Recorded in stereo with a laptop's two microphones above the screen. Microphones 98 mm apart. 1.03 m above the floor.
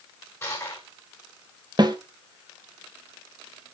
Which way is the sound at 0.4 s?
30° left (ahead or behind).